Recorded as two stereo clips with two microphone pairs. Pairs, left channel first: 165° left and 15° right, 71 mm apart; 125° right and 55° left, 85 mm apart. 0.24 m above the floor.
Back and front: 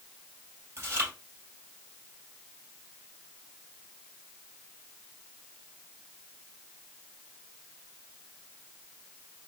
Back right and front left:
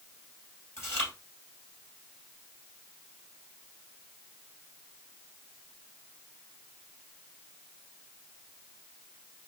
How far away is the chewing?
About 2 m.